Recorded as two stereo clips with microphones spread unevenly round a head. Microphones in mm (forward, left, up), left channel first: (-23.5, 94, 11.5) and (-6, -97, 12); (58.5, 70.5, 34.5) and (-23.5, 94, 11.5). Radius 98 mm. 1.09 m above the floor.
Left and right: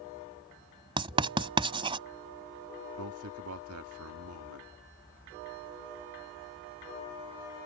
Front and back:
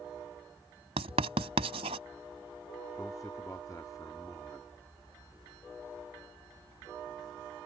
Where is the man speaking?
90° right.